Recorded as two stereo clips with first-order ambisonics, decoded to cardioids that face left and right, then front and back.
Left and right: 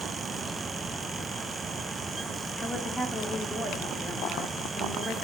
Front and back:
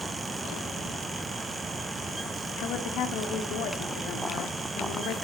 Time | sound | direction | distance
2.6 | a woman speaking | 10° left | 1.1 m